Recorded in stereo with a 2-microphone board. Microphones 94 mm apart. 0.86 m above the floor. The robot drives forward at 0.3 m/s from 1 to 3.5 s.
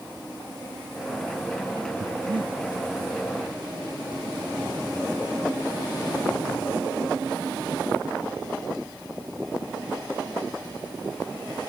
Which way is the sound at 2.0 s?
60° right (ahead or behind).